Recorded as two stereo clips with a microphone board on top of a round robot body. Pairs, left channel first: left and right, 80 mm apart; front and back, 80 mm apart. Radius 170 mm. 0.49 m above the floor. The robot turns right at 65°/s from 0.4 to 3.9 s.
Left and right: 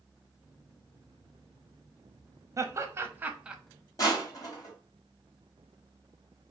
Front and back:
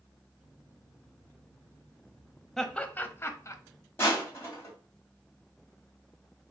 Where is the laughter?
80° right, 1.0 m; by 3.6 s 15° right, 1.0 m.